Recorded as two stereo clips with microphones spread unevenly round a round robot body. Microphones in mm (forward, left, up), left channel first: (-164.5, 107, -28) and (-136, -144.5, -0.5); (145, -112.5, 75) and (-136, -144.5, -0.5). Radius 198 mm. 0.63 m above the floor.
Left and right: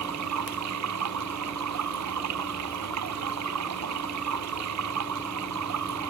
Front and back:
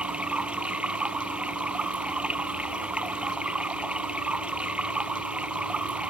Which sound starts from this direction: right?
Running water, at 0.0 s.